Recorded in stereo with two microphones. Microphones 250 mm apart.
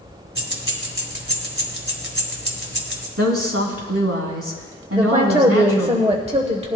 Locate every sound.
0.3 s keys jangling: 55° right (ahead or behind), 1.7 m
3.2 s a woman speaking: 65° right (ahead or behind), 2.5 m
4.9 s a woman speaking: 25° right (ahead or behind), 1.0 m